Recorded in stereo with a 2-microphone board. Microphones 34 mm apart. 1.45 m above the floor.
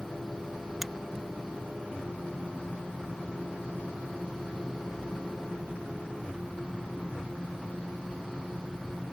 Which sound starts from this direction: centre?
A finger snap, at 0.8 s.